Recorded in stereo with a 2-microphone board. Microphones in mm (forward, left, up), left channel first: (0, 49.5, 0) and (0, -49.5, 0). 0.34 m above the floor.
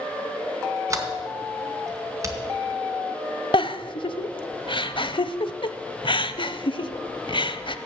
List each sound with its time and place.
0.9 s a sliding door: 30° right (ahead or behind), 1.9 m
3.5 s a giggle: 60° left (ahead or behind), 0.6 m